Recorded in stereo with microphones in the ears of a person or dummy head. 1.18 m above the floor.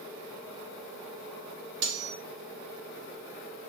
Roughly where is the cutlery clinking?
Right.